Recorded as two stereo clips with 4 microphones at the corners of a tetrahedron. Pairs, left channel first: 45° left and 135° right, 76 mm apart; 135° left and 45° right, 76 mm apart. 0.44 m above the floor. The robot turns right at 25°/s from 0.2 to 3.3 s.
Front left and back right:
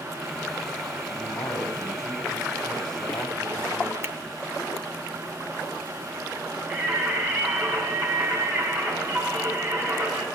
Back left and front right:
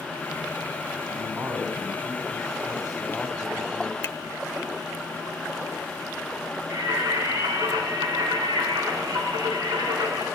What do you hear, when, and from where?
1.1 s a man speaking: 10° right, 3 m; by 3.9 s 45° left, 3 m
4.0 s a finger snap: 175° left, 0.8 m
6.7 s singing: 70° right, 4.5 m